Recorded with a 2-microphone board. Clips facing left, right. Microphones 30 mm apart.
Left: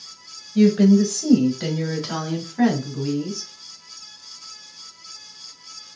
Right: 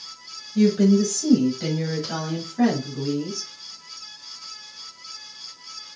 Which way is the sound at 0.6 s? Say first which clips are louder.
Left 3 dB; 25° left (ahead or behind).